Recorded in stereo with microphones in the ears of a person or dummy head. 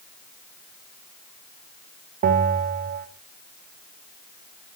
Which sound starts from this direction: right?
A bell, at 2.2 s.